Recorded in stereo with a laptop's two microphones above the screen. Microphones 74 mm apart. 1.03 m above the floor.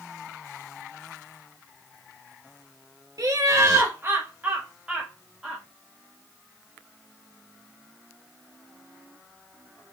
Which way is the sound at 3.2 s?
55° right (ahead or behind).